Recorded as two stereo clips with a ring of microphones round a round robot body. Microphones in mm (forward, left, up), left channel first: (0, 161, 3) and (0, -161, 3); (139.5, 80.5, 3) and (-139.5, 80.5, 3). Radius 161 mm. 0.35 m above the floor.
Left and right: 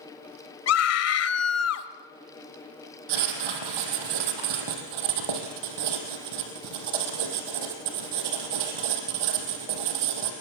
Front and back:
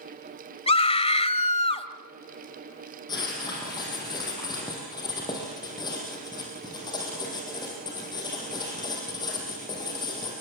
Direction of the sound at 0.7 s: 65° left.